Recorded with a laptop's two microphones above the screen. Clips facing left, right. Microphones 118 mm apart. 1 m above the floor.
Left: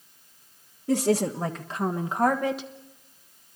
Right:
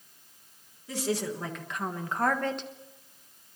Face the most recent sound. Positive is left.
turn(degrees=5)  # may be behind; listen again after turning